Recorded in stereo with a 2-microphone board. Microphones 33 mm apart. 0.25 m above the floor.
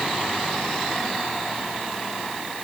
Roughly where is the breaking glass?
I don't hear breaking glass.